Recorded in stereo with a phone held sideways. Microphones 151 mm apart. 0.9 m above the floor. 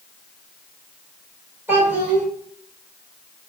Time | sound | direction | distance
1.7 | a child speaking | 15° right (ahead or behind) | 2 m